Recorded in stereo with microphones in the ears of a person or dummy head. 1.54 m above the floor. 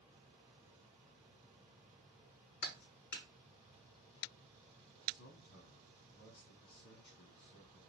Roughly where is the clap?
Left.